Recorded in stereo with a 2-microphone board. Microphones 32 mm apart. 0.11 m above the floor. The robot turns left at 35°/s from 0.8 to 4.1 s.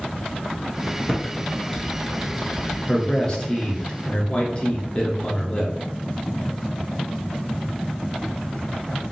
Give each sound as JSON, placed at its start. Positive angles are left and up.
{"t": 1.1, "sound": "typing on a keyboard", "side_deg": 20, "distance_m": 1.0}
{"t": 2.9, "sound": "a man speaking", "azimuth_deg": 145, "distance_m": 1.3}